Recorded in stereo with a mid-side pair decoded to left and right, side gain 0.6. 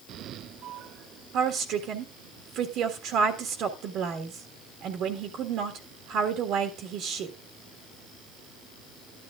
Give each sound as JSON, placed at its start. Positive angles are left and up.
{"t": 1.3, "sound": "a woman speaking", "azimuth_deg": -60, "distance_m": 1.7}